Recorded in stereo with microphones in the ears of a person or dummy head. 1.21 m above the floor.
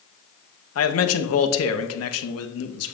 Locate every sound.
0.8 s a man speaking: 80° left, 0.9 m